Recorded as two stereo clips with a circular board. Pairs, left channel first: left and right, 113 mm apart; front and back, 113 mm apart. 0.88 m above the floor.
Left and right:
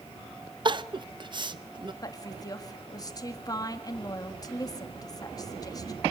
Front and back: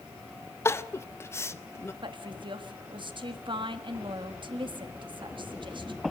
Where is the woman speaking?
140° left, 1.7 m.